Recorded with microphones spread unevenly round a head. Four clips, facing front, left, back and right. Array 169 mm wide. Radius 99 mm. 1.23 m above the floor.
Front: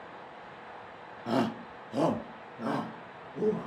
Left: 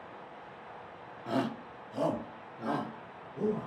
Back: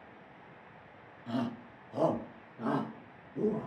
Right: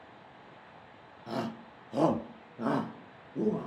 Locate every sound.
1.3 s a shout: 10° left, 0.7 m; by 3.7 s 90° right, 1.4 m